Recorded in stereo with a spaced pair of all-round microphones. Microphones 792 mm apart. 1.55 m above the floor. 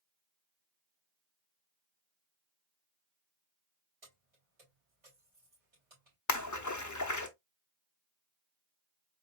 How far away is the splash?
About 0.6 m.